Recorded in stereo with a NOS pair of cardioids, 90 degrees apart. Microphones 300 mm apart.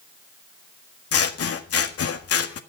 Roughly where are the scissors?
Ahead left.